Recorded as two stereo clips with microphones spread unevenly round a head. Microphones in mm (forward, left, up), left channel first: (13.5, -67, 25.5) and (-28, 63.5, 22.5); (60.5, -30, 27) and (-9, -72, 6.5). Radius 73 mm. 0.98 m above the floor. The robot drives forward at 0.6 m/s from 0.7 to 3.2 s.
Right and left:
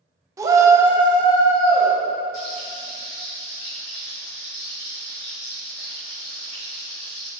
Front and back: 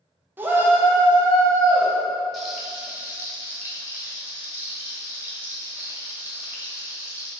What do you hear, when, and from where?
0.4 s a shout: 170° left, 0.5 m; by 1.9 s 175° left, 1.2 m
2.3 s frying: 45° right, 1.1 m; by 7.3 s 80° right, 0.9 m